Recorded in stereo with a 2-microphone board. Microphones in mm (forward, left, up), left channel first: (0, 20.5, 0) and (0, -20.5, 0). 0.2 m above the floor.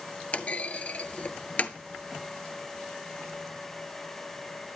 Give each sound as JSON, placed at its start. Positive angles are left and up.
{"t": 0.3, "sound": "a clunk", "side_deg": 40, "distance_m": 0.7}